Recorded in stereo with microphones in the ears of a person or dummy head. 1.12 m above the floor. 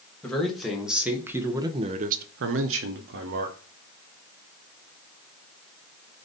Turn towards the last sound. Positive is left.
turn(degrees=-45)  # may be behind; listen again after turning